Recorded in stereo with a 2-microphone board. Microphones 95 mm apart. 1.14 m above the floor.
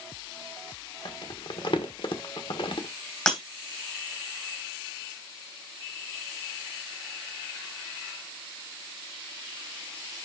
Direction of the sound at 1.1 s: 60° left (ahead or behind).